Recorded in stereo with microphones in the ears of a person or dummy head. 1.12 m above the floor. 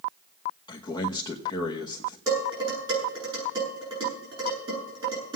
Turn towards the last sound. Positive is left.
turn(degrees=-20)  # may be behind; listen again after turning